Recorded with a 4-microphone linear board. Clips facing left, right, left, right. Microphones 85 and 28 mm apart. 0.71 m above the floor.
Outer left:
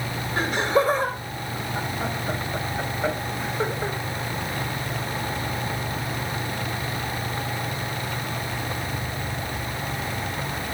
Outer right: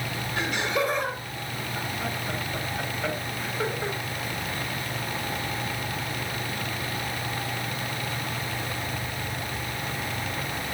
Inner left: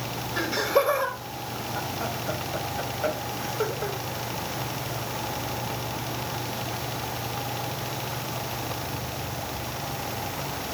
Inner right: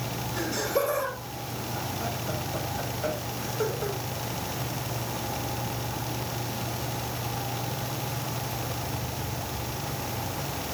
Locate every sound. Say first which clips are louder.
0.4 s laughter: outer left 6 dB, inner left 5 dB; 40° left (ahead or behind), 4 m; by 4.0 s 20° left (ahead or behind), 5 m